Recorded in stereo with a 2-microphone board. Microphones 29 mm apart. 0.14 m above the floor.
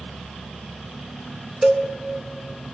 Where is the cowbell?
15° right (ahead or behind), 0.6 m.